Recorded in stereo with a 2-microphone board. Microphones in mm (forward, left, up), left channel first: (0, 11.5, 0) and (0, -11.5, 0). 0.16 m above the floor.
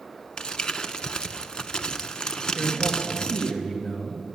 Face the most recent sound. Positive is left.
turn(degrees=15)  # may be behind; listen again after turning